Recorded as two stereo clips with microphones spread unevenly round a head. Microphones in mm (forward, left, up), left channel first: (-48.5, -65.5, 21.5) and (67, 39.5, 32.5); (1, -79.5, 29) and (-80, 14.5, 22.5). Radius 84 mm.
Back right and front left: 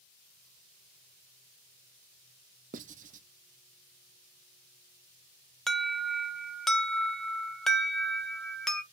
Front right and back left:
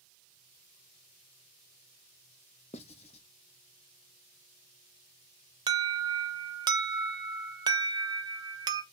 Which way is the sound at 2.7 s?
5° left.